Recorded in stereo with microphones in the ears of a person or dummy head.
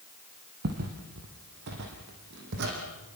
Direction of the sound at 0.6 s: 50° right (ahead or behind).